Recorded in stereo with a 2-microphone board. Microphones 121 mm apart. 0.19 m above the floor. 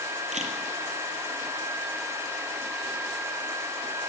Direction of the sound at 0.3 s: 70° right (ahead or behind).